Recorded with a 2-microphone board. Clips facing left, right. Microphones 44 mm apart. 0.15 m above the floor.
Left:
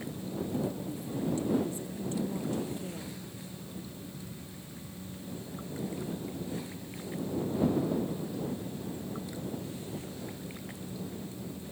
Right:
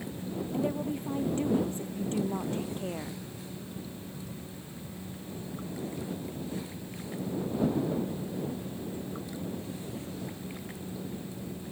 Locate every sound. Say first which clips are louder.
0.5 s a woman speaking: right 7 dB; 40° right (ahead or behind)